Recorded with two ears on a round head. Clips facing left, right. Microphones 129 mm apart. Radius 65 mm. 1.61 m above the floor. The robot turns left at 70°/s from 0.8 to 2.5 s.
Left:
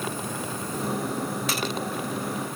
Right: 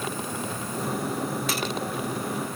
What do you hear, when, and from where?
Only background noise.